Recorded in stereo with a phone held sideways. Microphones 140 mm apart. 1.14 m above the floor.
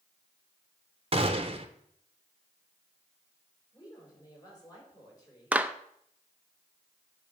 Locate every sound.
1.1 s a gunshot: 45° right (ahead or behind), 0.8 m
3.7 s a woman speaking: 30° left (ahead or behind), 5 m
5.5 s a clap: 10° right (ahead or behind), 0.6 m